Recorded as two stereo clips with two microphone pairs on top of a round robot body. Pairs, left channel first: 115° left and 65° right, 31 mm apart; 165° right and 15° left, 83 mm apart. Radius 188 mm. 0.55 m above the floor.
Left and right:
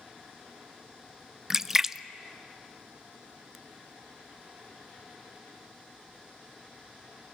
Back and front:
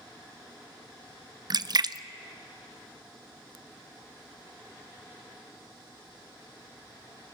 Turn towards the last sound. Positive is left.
turn(degrees=5)